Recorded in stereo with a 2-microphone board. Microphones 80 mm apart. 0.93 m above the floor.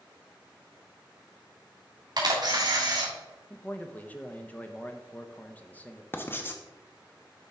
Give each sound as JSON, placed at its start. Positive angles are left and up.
{"t": 2.2, "sound": "a camera shutter", "side_deg": -50, "distance_m": 2.5}
{"t": 3.5, "sound": "a man speaking", "side_deg": 20, "distance_m": 0.8}
{"t": 6.1, "sound": "writing", "side_deg": 25, "distance_m": 0.9}